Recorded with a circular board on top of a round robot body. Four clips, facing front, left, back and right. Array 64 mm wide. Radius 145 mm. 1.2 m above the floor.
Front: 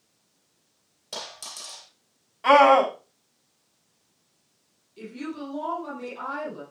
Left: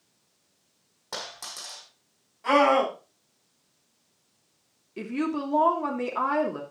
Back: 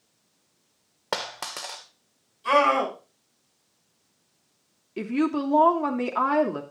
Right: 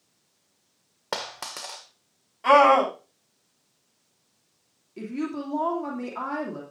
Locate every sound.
1.1 s a dropped coin: 145° right, 1.8 m
2.4 s a scream: 25° right, 7.5 m
5.0 s a woman speaking: 160° left, 3 m